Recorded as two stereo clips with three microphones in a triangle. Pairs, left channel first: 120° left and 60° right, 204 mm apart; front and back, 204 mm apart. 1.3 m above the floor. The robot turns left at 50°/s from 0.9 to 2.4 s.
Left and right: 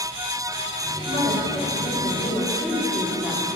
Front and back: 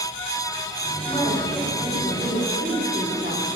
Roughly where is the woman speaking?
Ahead right.